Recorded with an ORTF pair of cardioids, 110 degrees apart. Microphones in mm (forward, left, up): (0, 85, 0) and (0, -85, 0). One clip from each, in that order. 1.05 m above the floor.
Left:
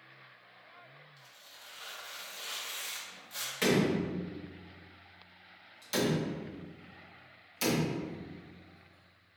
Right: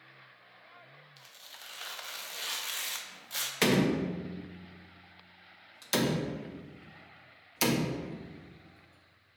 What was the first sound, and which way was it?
Tearing paper, 45° right.